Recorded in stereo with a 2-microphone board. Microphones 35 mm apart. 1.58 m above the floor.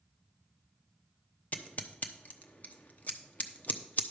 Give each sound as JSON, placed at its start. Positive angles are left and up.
{"t": 1.5, "sound": "scissors", "side_deg": 50, "distance_m": 0.9}